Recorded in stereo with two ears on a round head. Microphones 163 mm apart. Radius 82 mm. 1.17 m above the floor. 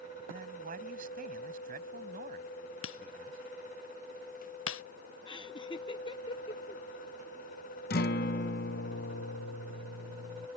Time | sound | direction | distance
0.3 | a man speaking | 50° right (ahead or behind) | ?
2.8 | breaking glass | 80° left | ?
5.3 | laughter | 25° left (ahead or behind) | ?
7.9 | a guitar | 55° left (ahead or behind) | ?